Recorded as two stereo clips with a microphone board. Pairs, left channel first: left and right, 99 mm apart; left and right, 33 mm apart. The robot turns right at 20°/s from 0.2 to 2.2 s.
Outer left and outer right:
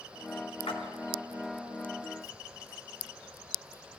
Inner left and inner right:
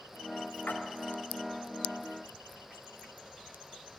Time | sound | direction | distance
0.7 | a splash | 70° left (ahead or behind) | 1.9 m